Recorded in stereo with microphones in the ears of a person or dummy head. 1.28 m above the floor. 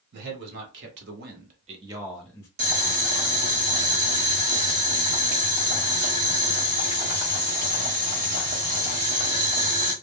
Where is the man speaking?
60° right (ahead or behind), 1.4 m; by 2.5 s 20° left (ahead or behind), 0.6 m.